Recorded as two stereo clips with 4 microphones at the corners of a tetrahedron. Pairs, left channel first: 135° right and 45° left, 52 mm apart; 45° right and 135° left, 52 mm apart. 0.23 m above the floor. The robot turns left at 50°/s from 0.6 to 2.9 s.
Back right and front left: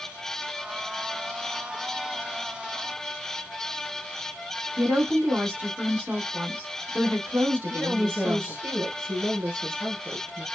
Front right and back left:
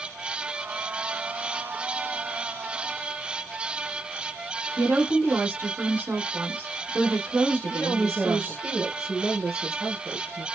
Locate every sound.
4.8 s a woman speaking: 100° left, 1.8 m
7.7 s a woman speaking: 95° left, 2.5 m